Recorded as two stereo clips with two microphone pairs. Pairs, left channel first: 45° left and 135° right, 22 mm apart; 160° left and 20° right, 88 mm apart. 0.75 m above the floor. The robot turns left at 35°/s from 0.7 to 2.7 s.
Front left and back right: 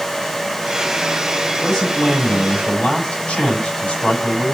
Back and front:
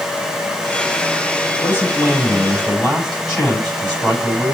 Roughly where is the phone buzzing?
No phone buzzing in this recording.